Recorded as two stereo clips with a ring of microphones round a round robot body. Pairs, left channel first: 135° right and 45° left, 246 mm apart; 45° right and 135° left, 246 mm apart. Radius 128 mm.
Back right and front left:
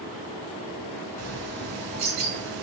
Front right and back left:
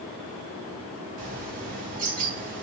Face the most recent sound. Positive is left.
turn(degrees=80)